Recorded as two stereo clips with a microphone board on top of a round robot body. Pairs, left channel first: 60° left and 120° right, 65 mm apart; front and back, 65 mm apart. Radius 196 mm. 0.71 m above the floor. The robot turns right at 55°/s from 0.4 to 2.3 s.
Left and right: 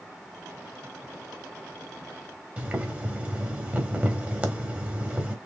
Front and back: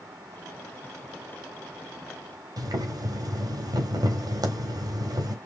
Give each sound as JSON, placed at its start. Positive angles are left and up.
{"t": 2.6, "sound": "boiling", "azimuth_deg": 175, "distance_m": 2.0}